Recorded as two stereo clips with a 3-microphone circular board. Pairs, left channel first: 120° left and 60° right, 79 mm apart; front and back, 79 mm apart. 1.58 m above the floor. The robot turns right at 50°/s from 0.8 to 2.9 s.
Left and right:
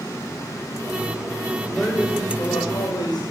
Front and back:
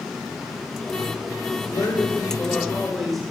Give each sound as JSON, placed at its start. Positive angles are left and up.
{"t": 1.7, "sound": "a man speaking", "azimuth_deg": 25, "distance_m": 6.0}